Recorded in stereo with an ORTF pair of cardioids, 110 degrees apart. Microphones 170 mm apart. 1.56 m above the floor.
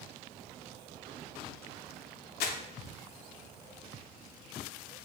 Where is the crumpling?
70° left, 0.5 m.